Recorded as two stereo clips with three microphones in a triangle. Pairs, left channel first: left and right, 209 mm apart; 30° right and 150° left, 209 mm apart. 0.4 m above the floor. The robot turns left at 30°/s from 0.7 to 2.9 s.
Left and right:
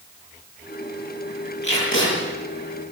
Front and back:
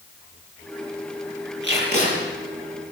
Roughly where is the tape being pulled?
Behind left.